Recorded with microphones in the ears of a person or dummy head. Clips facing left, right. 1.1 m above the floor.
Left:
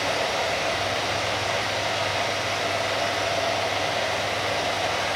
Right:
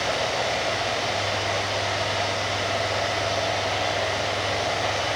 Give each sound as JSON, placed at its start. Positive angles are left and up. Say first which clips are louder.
{"t": 0.0, "sound": "running water", "louder": "even", "side_deg": 0, "distance_m": 4.0}